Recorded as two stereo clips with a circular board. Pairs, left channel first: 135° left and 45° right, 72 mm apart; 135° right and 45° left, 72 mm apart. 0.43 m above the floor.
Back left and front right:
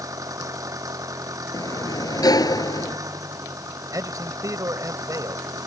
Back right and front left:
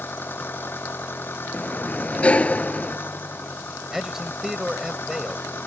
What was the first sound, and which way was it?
An engine running, 75° right.